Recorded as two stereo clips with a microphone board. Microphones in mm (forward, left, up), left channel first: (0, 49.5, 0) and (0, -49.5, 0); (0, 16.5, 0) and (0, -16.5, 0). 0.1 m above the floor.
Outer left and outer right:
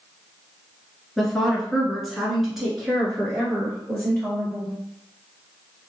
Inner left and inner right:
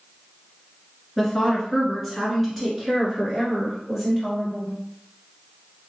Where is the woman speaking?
5° left (ahead or behind), 1.3 m; by 4.8 s 5° right (ahead or behind), 2.0 m.